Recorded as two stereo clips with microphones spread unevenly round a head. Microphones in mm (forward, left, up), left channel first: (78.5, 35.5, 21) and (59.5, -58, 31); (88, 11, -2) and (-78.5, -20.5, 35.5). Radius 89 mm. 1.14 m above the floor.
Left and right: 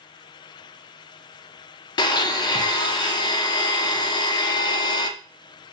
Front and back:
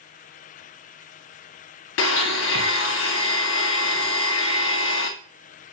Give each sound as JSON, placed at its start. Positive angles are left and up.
{"t": 2.0, "sound": "a blender", "azimuth_deg": 30, "distance_m": 0.5}